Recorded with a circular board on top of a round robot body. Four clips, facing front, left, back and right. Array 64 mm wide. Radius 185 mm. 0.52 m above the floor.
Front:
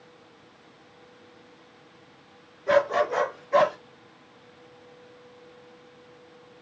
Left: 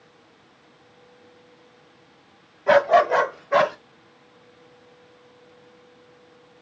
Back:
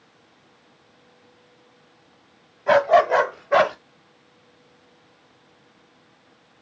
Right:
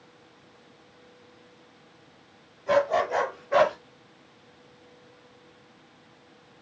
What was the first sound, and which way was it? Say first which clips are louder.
A dog barking: left 7 dB, back 6 dB; 135° left.